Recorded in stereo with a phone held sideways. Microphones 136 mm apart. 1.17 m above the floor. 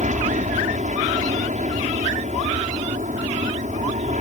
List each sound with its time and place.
0.0 s an aircraft: 60° right (ahead or behind)